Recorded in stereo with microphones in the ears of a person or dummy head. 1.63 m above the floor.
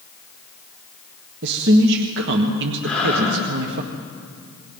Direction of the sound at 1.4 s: 70° right (ahead or behind).